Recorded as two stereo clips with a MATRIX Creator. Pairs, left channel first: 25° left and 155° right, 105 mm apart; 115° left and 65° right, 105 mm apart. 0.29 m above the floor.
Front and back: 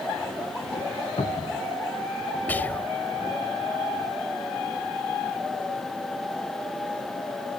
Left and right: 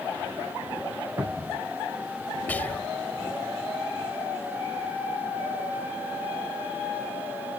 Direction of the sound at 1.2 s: Straight ahead.